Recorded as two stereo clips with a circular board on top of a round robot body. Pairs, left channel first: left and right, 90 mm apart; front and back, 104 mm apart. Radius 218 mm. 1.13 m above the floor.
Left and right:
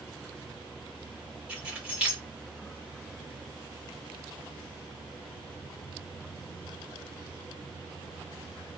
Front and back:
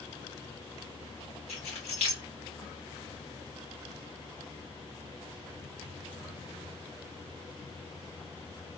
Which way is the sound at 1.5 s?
15° right.